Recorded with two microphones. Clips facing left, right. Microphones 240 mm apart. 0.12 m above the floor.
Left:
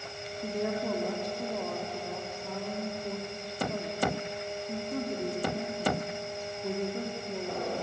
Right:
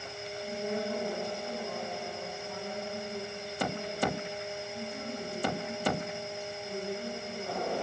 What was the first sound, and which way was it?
A woman speaking, 75° left (ahead or behind).